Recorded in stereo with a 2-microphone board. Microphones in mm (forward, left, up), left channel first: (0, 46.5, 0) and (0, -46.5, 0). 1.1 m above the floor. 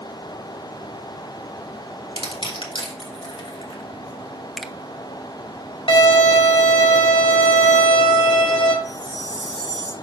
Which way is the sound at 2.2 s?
85° left.